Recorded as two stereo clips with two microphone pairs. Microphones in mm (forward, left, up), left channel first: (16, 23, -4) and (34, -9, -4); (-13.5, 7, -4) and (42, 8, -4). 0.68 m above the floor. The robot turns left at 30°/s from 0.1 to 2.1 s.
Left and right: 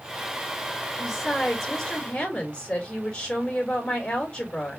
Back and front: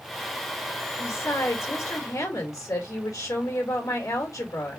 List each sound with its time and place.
1.0 s a woman speaking: 150° right, 3 m; by 4.8 s straight behind, 3 m